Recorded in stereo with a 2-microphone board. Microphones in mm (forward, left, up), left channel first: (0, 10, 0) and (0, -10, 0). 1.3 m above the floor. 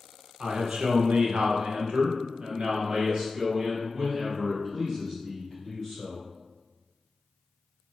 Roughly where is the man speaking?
Right.